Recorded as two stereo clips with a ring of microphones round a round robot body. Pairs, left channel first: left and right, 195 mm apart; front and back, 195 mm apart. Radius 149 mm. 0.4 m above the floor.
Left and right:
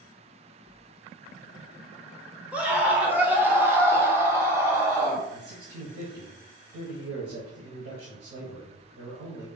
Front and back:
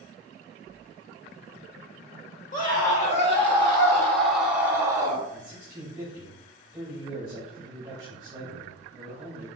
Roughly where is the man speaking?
Right.